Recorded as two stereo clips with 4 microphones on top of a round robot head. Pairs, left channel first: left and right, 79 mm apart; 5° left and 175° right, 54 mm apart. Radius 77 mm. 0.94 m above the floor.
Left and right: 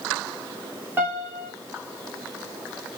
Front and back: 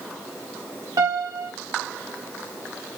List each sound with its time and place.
1.0 s a piano: 160° right, 1.9 m